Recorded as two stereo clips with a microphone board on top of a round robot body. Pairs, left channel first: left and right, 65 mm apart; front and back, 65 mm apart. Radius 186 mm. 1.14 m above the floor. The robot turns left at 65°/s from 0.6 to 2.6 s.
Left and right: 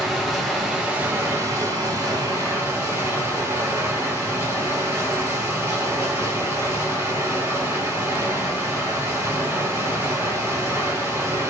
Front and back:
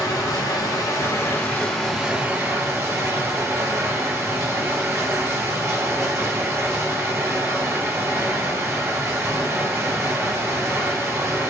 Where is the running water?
Straight ahead, 1.6 m; by 11.5 s 130° right, 1.6 m.